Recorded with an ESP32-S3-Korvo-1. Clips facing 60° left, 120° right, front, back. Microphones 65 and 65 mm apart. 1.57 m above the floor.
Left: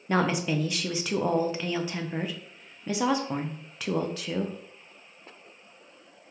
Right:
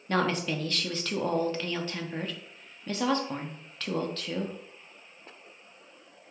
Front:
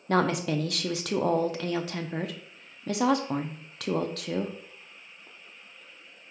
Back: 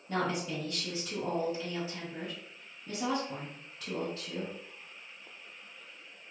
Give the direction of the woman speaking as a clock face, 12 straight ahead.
1 o'clock.